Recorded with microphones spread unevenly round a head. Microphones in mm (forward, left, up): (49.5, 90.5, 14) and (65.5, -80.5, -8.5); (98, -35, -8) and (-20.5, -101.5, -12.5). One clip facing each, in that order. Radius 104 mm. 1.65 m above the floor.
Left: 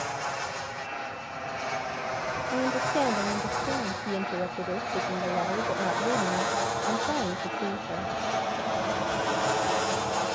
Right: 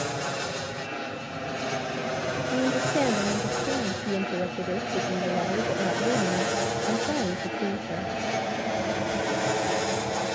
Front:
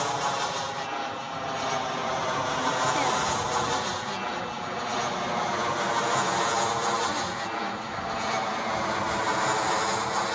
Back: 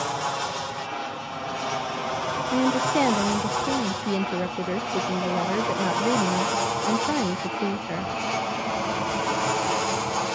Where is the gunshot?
I don't hear a gunshot.